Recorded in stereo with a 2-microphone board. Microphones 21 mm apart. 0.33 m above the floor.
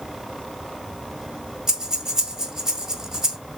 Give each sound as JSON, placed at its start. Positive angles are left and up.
{"t": 1.7, "sound": "breathing", "side_deg": -25, "distance_m": 1.0}